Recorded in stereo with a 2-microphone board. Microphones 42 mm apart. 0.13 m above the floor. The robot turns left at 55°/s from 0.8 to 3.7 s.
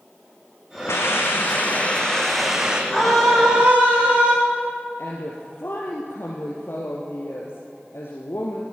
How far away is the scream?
About 7.5 m.